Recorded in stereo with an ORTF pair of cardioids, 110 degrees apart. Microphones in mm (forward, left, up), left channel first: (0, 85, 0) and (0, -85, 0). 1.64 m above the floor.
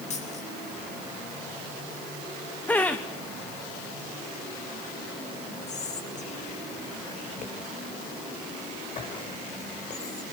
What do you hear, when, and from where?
0.1 s a dropped coin: 45° left, 7 m
2.7 s laughter: 10° left, 1.3 m
5.7 s whispering: 45° left, 7 m